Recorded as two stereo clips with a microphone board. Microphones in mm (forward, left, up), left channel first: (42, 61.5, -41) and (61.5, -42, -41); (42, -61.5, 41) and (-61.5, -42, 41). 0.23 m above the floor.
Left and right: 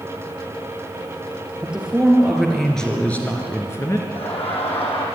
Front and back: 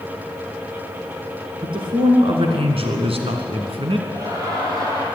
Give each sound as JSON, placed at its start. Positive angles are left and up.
{"t": 1.6, "sound": "a man speaking", "azimuth_deg": -160, "distance_m": 4.0}
{"t": 4.1, "sound": "laughter", "azimuth_deg": 115, "distance_m": 7.0}